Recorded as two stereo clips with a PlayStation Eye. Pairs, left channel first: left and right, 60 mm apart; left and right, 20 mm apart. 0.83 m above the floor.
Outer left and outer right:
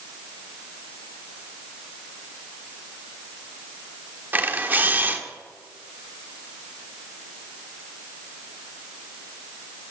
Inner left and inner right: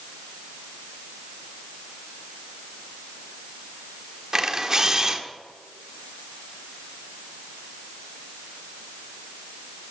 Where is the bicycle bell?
I don't hear a bicycle bell.